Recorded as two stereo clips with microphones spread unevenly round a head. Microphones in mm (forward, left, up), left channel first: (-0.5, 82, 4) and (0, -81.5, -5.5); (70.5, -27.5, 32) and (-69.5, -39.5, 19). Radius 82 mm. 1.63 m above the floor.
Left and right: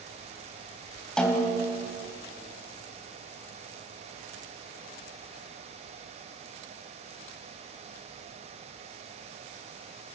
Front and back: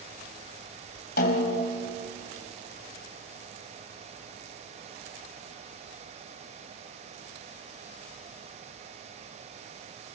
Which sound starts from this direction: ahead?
A snare drum, at 1.2 s.